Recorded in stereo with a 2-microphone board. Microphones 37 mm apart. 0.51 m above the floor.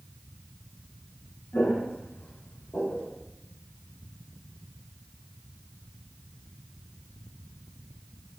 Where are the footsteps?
60° left (ahead or behind), 1.3 m; by 3.1 s 75° left (ahead or behind), 2 m.